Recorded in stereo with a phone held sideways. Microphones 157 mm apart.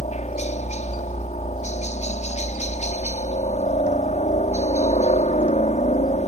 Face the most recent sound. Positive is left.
turn(degrees=45)  # may be behind; listen again after turning